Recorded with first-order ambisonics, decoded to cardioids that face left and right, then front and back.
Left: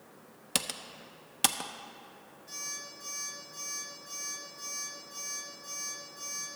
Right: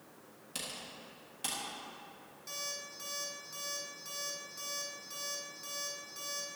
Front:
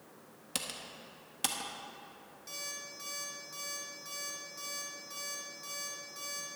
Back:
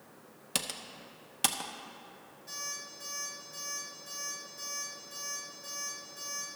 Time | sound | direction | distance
0.6 | typing on a keyboard | 105° left | 0.6 m
2.5 | an alarm clock | 55° right | 4 m